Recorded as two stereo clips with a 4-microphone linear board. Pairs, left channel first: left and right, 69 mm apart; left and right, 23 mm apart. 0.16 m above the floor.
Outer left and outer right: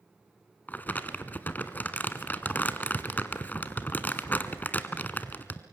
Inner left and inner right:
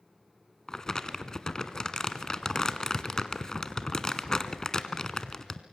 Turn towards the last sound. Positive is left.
turn(degrees=25)  # may be behind; listen again after turning